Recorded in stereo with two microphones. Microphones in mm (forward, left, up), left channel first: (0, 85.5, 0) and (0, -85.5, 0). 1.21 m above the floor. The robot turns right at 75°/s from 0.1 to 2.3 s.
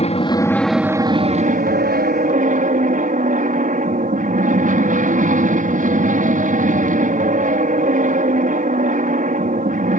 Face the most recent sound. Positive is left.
turn(degrees=-60)